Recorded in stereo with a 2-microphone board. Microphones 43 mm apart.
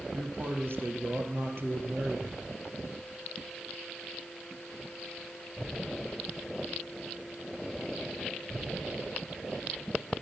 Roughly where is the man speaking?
Right.